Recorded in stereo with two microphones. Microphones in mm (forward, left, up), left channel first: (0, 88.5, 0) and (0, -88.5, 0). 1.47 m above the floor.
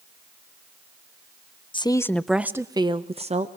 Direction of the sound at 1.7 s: 30° left (ahead or behind).